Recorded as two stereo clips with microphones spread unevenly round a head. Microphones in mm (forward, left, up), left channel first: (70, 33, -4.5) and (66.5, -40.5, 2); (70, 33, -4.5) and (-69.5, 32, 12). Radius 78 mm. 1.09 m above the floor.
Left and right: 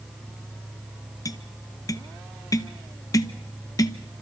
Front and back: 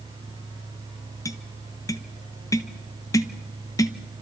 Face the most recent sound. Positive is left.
turn(degrees=60)